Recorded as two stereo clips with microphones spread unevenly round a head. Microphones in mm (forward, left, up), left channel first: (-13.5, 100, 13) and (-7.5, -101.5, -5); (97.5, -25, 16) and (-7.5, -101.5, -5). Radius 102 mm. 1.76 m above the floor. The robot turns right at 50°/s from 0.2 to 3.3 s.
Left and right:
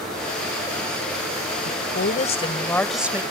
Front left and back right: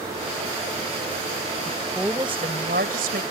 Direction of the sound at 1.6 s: 115° left.